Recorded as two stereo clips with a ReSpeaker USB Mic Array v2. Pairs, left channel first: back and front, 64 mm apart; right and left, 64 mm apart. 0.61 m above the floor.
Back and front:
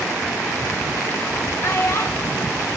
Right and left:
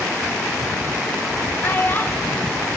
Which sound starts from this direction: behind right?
A child speaking, at 1.6 s.